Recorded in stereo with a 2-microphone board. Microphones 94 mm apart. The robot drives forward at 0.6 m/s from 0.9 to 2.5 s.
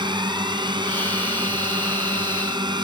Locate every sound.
0.0 s a drone: 55° right (ahead or behind)